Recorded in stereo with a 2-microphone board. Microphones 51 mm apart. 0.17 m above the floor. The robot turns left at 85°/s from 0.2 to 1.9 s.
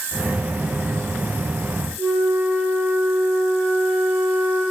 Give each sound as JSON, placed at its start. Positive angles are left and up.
{"t": 2.0, "sound": "a flute", "side_deg": -55, "distance_m": 2.5}